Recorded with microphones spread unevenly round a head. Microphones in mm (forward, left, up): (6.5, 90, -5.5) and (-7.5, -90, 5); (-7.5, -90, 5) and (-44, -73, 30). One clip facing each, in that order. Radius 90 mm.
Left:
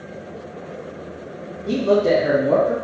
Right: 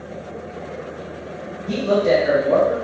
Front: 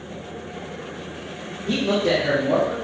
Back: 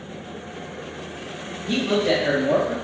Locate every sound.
1.7 s a man speaking: 50° left, 1.0 m; by 2.7 s 90° left, 0.6 m